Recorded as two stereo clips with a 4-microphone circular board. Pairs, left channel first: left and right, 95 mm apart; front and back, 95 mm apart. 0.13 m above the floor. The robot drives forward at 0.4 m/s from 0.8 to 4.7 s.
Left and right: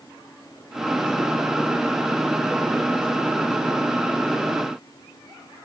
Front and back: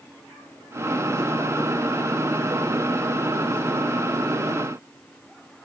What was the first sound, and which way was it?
Only background noise.